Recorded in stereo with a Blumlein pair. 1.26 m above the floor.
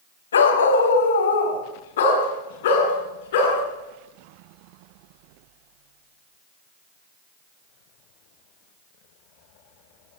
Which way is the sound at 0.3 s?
70° left.